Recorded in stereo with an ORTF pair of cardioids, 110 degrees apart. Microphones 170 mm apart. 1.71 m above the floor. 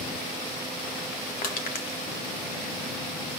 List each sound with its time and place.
1.4 s crushing: 60° left, 2.0 m